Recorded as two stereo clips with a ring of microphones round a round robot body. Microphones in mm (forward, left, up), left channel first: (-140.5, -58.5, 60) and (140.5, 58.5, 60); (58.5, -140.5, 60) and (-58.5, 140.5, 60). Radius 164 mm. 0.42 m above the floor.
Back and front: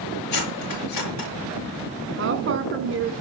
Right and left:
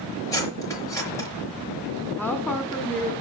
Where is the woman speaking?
15° left, 1.7 m.